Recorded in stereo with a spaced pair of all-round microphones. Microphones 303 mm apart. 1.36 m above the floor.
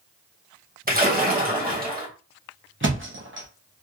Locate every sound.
0.9 s a splash: 30° right (ahead or behind), 1.0 m
2.8 s a thud: 40° right (ahead or behind), 0.8 m